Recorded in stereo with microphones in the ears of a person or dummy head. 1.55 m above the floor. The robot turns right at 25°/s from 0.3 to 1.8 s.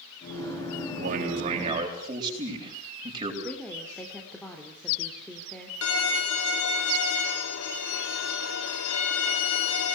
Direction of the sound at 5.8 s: 80° left.